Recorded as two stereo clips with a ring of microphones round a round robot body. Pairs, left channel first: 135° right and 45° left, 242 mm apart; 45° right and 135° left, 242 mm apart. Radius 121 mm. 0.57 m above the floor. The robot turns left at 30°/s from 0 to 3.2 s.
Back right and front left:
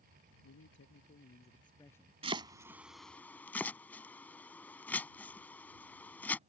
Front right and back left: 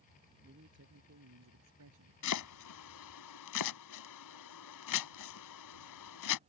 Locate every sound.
0.4 s a man speaking: 170° right; by 2.1 s 140° left
2.2 s chopping: 20° right; by 6.4 s 50° right